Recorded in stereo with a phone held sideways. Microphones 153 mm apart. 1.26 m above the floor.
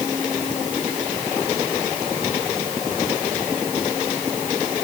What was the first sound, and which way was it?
Only background noise.